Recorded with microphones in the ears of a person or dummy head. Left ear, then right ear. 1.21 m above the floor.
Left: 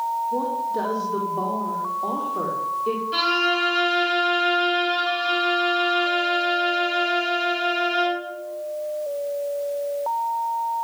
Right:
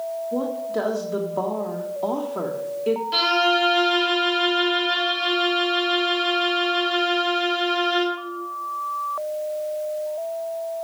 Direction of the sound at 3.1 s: 25° right (ahead or behind).